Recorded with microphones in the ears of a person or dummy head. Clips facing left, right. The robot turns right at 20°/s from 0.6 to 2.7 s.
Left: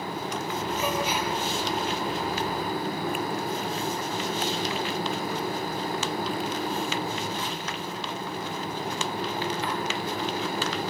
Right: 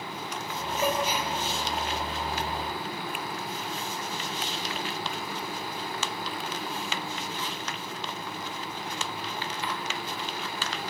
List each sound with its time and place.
0.8 s a gasp: 45° right (ahead or behind), 6.5 m; by 1.3 s 35° right (ahead or behind), 6.5 m